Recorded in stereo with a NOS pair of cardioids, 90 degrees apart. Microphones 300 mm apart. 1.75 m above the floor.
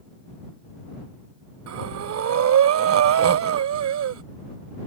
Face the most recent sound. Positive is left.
turn(degrees=-60)